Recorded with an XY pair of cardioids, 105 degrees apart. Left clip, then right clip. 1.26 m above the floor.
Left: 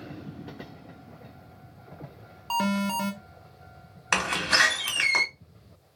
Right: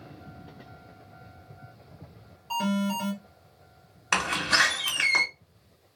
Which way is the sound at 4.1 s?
10° left.